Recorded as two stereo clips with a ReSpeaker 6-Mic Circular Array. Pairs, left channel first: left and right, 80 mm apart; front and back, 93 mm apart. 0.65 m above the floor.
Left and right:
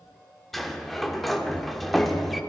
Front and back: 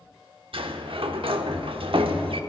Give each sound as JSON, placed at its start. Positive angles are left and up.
{"t": 0.5, "sound": "a sliding door", "azimuth_deg": 175, "distance_m": 0.9}